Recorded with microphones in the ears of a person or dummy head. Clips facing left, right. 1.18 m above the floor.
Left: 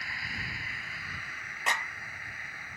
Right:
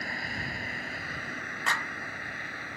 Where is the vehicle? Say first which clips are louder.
Right 7 dB; 45° right (ahead or behind); by 2.8 s 55° right (ahead or behind).